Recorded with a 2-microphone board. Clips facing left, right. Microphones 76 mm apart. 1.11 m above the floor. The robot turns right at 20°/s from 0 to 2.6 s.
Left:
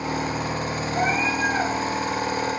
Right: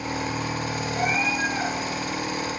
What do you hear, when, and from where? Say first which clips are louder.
0.9 s a cat meowing: left 2 dB; 75° left (ahead or behind), 5 m; by 1.7 s 85° left, 5 m